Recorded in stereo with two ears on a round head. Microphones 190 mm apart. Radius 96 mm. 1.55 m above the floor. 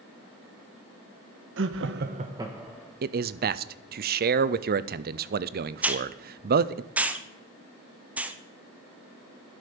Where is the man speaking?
45° right (ahead or behind), 0.5 m.